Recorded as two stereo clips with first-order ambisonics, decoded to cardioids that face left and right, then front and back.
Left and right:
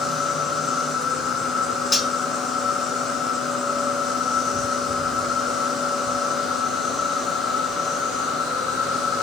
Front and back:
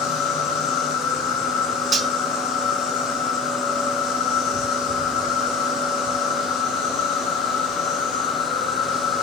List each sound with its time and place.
0.0 s an insect: 30° left, 1.4 m
1.9 s cutlery clinking: 155° left, 0.5 m